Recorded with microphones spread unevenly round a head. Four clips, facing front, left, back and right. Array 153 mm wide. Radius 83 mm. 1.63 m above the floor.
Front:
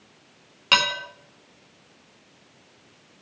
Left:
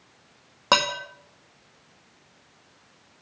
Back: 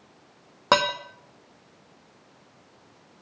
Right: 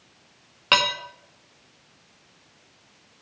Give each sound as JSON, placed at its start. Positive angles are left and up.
{"t": 0.7, "sound": "dishes clattering", "azimuth_deg": 160, "distance_m": 1.7}